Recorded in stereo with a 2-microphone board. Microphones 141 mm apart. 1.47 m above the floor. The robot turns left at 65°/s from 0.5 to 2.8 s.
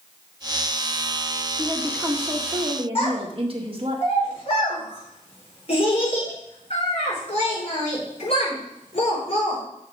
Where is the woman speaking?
40° left, 1.7 m; by 4.0 s 45° right, 1.7 m.